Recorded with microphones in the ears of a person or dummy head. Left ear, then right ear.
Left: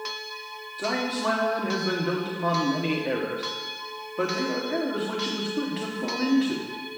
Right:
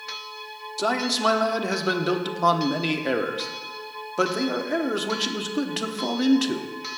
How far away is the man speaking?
About 0.9 m.